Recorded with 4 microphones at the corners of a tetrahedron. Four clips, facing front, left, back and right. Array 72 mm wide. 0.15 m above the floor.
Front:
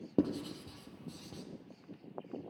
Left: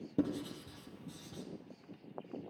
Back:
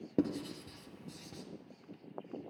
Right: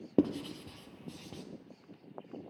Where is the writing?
90° right, 0.7 m.